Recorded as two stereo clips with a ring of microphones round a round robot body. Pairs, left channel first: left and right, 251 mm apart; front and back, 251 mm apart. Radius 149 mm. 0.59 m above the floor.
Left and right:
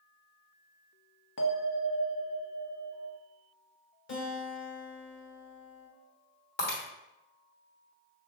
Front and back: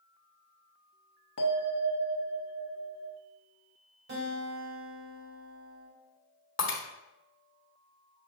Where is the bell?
50° left, 0.6 m.